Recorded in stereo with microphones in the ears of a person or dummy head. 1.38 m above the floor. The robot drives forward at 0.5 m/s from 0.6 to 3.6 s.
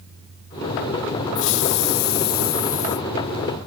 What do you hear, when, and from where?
1.4 s a hiss: 70° left (ahead or behind); by 3.1 s 40° left (ahead or behind)